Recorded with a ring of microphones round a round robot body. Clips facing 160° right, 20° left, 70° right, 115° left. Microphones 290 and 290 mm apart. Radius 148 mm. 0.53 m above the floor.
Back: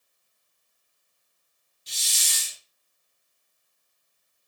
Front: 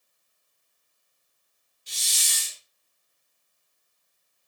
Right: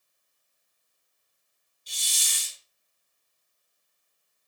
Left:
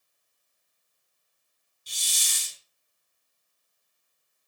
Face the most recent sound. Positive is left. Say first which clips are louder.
# even, even
turn(degrees=135)